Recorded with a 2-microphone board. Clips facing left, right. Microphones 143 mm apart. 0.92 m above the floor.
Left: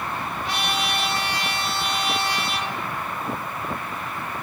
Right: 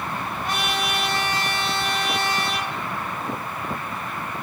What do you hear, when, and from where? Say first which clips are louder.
0.4 s a trumpet: right 1 dB; 45° right (ahead or behind), 1.3 m